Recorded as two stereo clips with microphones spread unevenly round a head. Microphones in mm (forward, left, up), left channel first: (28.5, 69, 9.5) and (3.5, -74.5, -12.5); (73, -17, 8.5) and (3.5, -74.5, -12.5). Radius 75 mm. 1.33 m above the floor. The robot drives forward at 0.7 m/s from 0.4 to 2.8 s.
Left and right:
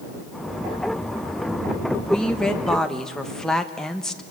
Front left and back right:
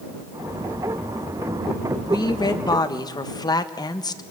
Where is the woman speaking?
5° right, 2 m.